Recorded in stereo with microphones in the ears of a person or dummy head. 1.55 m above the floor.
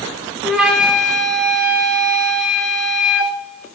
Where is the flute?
Centre (ahead or behind), 0.8 m.